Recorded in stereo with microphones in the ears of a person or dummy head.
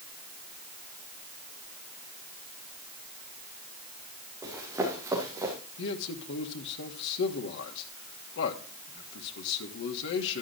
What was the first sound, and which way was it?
Running footsteps, 15° right (ahead or behind).